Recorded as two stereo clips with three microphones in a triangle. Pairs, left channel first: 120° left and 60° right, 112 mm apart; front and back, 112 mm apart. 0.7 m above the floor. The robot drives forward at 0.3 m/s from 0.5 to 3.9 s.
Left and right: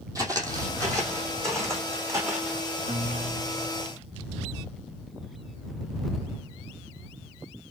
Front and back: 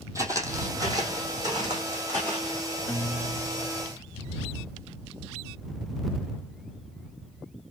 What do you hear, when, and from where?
0.1 s footsteps: 115° right, 1.7 m; by 2.6 s 130° right, 3.5 m
2.9 s a guitar: 80° right, 1.3 m; by 4.0 s 100° right, 1.3 m